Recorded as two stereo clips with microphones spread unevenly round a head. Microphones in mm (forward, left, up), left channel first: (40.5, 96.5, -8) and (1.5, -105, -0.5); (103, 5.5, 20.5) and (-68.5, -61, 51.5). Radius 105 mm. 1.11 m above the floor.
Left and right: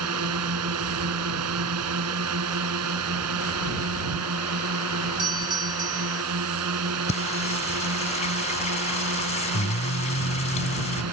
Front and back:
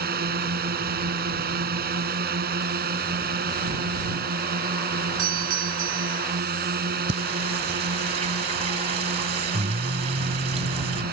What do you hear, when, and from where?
0.0 s a drone: 120° right
5.2 s a doorbell: 170° right
7.1 s singing: 140° left